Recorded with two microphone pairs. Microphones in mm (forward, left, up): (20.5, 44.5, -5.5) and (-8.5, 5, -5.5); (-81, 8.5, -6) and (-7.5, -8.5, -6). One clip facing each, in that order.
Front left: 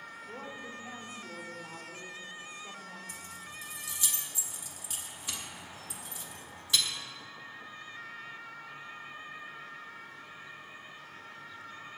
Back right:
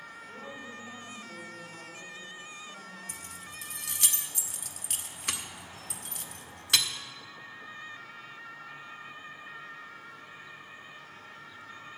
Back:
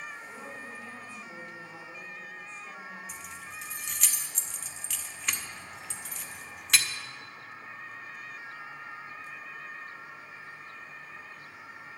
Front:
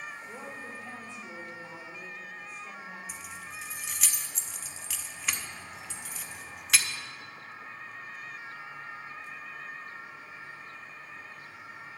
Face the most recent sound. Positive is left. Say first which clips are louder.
# even, even
turn(degrees=-105)